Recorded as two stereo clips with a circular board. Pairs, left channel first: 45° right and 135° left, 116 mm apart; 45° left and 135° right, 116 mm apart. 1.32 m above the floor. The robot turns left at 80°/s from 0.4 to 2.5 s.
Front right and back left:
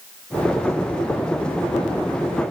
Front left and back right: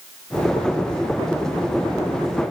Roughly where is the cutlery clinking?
No cutlery clinking in this recording.